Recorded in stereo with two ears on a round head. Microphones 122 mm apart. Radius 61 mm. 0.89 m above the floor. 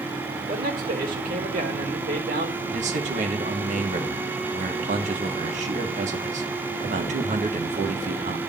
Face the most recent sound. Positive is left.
turn(degrees=-55)  # may be behind; listen again after turning